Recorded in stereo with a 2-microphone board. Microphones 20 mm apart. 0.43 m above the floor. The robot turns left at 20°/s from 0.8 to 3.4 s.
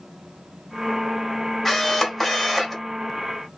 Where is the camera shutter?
15° left (ahead or behind), 1.2 m; by 2.8 s 5° left (ahead or behind), 1.2 m.